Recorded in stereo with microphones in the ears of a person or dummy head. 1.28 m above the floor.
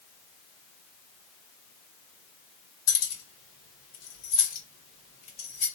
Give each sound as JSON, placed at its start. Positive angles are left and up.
{"t": 2.9, "sound": "keys jangling", "side_deg": 85, "distance_m": 1.8}